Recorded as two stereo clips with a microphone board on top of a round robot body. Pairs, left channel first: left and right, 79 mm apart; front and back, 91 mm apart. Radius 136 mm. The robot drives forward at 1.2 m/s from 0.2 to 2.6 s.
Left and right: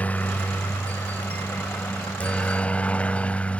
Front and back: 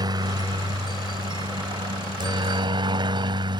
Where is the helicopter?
155° left; by 3.6 s 160° left.